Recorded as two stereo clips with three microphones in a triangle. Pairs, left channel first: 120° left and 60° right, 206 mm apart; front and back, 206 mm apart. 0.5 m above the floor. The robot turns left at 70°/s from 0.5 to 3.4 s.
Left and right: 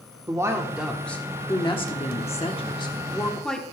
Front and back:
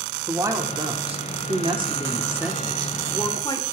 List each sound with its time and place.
0.3 s a woman speaking: 120° right, 1.4 m; by 3.6 s 35° left, 1.4 m